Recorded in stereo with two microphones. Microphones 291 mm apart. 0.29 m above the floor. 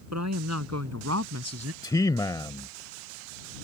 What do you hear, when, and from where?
0.1 s a woman speaking: 70° right (ahead or behind); by 1.7 s 60° right (ahead or behind)
1.8 s a man speaking: 15° left (ahead or behind)